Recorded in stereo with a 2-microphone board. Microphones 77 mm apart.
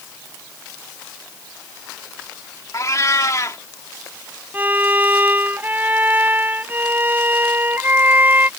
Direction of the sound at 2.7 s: 40° left (ahead or behind).